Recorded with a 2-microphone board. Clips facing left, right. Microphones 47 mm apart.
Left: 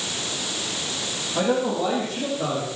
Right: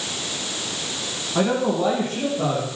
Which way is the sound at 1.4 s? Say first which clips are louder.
Right 2 dB; 40° right (ahead or behind).